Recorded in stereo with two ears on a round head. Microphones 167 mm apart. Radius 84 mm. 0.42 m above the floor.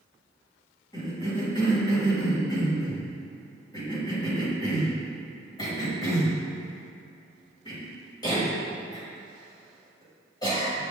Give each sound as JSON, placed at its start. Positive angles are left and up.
{"t": 0.9, "sound": "a cough", "side_deg": 20, "distance_m": 2.0}